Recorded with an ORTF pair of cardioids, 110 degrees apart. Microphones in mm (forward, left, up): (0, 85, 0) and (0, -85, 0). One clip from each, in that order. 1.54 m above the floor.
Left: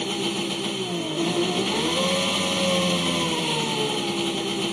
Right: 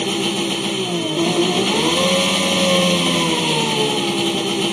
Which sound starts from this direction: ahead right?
An engine running, at 0.0 s.